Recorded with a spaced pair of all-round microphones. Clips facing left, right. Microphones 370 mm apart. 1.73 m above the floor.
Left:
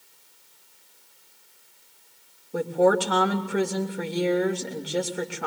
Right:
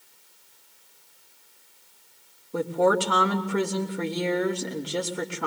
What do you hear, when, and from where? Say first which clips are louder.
2.5 s a woman speaking: left 2 dB; 5° right (ahead or behind), 3 m